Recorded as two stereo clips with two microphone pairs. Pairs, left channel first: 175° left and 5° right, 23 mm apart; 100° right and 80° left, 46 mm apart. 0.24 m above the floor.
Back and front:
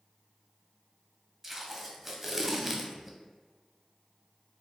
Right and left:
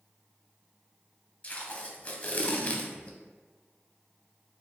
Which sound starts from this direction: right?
Tape being pulled, at 1.4 s.